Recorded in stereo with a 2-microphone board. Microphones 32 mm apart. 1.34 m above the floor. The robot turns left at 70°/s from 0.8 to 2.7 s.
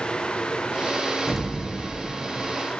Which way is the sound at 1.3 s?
10° left.